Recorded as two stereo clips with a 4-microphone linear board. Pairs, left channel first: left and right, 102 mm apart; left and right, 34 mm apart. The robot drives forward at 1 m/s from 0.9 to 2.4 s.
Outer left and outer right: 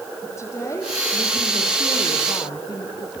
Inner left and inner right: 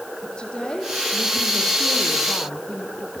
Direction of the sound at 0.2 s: 30° left (ahead or behind).